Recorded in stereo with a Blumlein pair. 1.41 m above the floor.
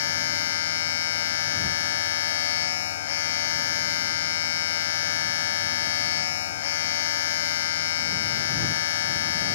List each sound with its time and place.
0.0 s a machine running: 55° left